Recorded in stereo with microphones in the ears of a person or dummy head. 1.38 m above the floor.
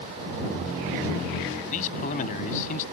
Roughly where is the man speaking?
Left.